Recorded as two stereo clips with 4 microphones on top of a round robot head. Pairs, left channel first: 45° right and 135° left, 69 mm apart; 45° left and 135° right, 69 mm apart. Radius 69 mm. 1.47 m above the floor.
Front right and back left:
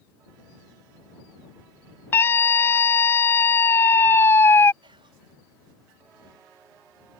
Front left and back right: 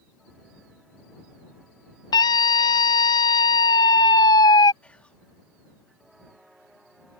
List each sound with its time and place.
2.1 s a scream: 15° left
4.8 s whispering: 120° left